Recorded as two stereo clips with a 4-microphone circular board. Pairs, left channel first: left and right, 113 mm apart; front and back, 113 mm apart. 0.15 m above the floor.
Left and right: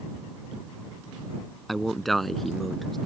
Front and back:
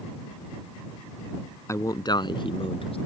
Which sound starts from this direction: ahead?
A man speaking, at 1.7 s.